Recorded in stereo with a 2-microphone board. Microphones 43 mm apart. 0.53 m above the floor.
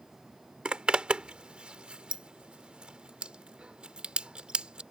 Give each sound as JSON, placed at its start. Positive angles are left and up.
{"t": 0.7, "sound": "a zipper", "side_deg": -25}